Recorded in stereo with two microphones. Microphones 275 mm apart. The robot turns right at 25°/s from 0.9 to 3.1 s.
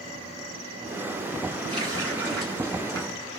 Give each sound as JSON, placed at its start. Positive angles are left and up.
{"t": 1.7, "sound": "a running tap", "azimuth_deg": -20, "distance_m": 1.6}